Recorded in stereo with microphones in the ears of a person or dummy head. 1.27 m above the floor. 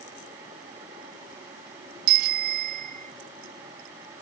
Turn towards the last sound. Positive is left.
turn(degrees=-55)  # may be behind; listen again after turning